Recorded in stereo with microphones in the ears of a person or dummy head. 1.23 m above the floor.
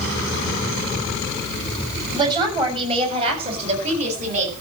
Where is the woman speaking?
25° right (ahead or behind), 5.5 m; by 4.5 s 45° right (ahead or behind), 7.5 m.